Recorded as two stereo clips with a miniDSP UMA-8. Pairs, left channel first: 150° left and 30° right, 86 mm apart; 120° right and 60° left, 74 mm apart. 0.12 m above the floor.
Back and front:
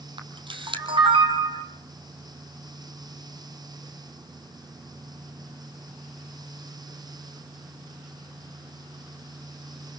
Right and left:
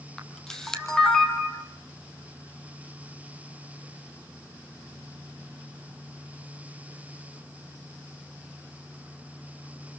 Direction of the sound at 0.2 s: 40° right.